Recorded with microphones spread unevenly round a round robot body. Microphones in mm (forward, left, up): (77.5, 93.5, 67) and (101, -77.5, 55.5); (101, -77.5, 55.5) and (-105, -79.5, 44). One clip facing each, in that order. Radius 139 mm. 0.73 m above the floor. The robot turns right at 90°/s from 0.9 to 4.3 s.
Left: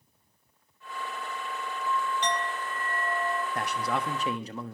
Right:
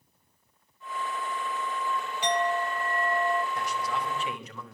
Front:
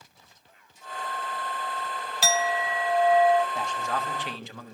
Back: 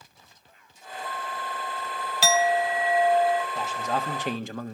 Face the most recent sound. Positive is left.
turn(degrees=155)